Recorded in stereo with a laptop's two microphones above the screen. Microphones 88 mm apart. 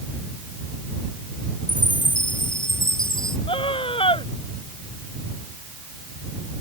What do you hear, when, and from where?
1.7 s a chime: 60° left (ahead or behind)
3.5 s a scream: 85° left